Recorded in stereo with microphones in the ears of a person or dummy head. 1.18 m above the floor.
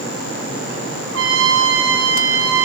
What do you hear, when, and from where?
1.1 s a trumpet: 90° right, 2.5 m